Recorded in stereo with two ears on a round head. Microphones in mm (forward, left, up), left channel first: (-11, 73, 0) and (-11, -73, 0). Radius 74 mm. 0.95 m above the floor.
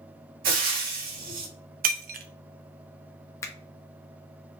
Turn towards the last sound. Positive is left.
turn(degrees=20)  # may be behind; listen again after turning